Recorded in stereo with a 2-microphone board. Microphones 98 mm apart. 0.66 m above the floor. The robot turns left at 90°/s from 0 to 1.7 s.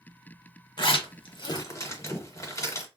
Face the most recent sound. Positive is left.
turn(degrees=30)  # may be behind; listen again after turning